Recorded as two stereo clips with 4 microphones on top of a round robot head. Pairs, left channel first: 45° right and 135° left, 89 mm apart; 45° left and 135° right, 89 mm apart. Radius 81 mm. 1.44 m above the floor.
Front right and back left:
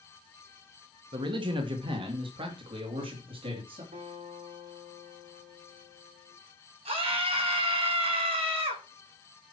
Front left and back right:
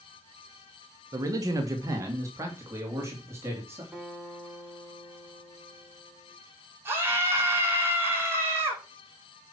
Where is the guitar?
145° left, 5.5 m.